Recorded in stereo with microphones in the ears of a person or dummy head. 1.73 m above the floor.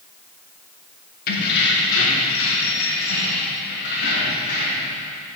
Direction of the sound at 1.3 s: 50° left (ahead or behind).